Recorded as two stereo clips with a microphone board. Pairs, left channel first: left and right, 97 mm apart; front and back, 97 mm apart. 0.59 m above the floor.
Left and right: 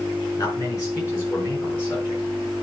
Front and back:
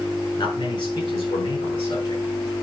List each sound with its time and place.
0.4 s a man speaking: 30° left, 6 m; by 2.6 s 20° left, 5 m